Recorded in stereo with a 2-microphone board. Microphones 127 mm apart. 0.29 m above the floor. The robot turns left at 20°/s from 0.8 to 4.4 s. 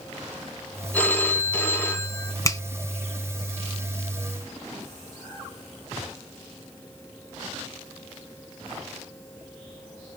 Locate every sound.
0.9 s a phone ringing: 10° left (ahead or behind), 0.9 m; by 2.4 s 20° left (ahead or behind), 0.9 m
2.5 s a finger snap: 25° left (ahead or behind), 0.7 m